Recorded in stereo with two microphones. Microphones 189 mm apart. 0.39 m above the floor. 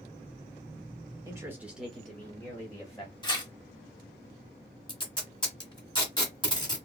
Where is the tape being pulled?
25° left (ahead or behind), 1.2 m.